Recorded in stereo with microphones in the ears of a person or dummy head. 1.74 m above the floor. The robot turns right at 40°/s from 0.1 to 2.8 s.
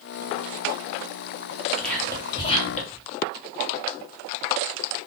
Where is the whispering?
10° left (ahead or behind), 1.1 m; by 3.0 s 45° left (ahead or behind), 1.1 m.